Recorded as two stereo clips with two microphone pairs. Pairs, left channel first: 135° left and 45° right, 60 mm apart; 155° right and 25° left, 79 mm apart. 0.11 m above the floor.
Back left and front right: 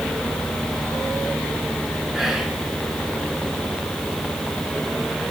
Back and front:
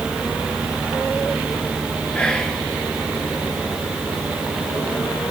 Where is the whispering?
110° right, 1.1 m.